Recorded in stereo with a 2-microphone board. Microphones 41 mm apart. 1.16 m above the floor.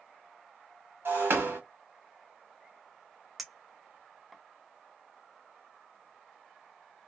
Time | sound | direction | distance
1.1 | breaking glass | 75° right (ahead or behind) | 1.5 m
3.4 | a clink | centre (ahead or behind) | 0.6 m